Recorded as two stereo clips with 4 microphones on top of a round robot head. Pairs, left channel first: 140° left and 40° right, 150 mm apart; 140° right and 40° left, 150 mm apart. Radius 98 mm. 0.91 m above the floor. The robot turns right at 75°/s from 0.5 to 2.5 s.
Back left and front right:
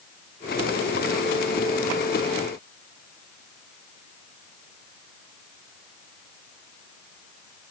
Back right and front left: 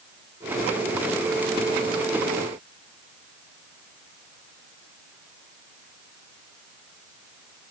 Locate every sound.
Only background noise.